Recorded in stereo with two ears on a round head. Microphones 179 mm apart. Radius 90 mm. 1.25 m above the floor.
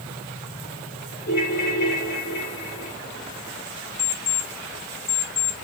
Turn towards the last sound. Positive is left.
turn(degrees=80)